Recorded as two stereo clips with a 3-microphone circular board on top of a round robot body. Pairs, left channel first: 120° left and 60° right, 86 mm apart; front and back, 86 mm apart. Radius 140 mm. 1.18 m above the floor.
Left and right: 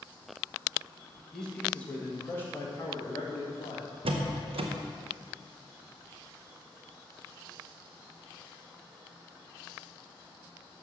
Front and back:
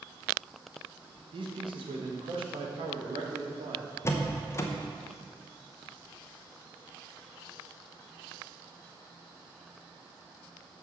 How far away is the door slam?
About 0.7 m.